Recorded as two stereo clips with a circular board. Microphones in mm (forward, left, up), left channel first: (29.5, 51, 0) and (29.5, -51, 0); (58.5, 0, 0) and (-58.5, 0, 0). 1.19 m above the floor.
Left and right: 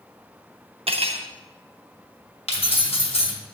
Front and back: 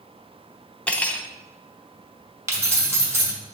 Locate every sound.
0.9 s cutlery clinking: 80° right, 0.7 m
2.5 s keys jangling: 110° left, 1.4 m